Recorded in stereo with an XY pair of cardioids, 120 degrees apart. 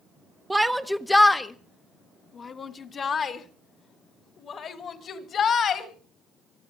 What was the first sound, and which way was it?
A shout, 10° right.